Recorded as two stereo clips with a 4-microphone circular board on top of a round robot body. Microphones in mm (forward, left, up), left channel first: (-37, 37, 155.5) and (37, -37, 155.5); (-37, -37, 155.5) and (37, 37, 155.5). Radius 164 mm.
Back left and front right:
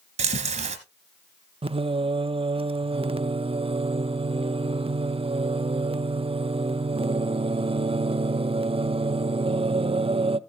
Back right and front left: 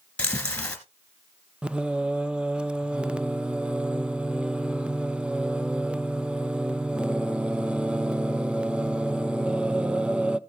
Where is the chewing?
55° right, 1.9 m.